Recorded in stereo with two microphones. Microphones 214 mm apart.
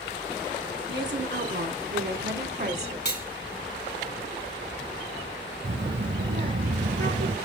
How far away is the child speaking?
About 1.5 m.